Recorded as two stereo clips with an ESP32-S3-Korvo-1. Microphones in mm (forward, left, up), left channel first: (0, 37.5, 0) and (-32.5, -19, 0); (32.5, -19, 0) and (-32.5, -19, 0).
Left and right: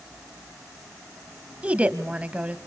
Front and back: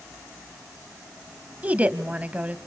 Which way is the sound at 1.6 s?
155° right.